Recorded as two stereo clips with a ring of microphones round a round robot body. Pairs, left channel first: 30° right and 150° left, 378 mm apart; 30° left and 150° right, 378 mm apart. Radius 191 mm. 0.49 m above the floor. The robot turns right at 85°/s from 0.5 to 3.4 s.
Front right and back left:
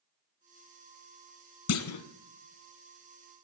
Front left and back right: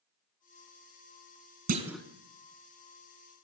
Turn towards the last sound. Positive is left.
turn(degrees=60)